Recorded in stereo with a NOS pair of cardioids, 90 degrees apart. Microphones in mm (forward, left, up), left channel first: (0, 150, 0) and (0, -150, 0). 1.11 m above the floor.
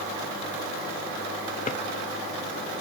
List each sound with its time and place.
1.7 s a drawer: 30° left, 0.8 m